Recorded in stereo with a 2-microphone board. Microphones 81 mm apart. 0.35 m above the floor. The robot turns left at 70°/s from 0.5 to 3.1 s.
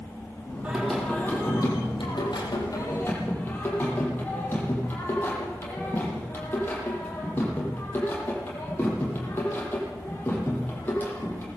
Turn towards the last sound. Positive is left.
turn(degrees=25)